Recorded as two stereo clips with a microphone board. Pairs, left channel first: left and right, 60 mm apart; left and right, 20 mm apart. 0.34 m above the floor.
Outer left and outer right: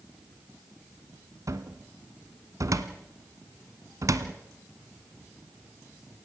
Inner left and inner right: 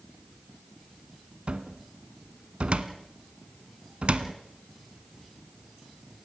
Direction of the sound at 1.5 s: 70° right (ahead or behind).